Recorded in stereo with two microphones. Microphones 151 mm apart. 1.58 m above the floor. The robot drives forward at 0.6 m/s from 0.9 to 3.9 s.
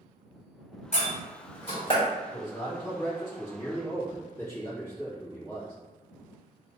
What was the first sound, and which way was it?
A door slam, 50° left (ahead or behind).